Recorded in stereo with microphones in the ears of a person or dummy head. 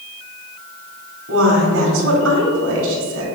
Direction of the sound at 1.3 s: 80° right.